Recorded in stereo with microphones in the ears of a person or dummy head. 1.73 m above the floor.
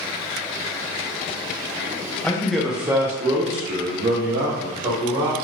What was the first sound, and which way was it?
A man speaking, 5° left (ahead or behind).